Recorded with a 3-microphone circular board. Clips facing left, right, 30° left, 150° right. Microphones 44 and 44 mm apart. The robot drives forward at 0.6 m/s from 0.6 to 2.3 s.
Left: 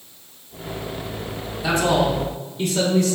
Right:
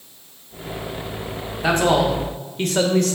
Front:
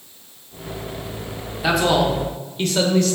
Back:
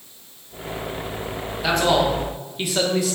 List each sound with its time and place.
1.6 s a man speaking: 50° right, 1.2 m; by 3.2 s 70° right, 1.0 m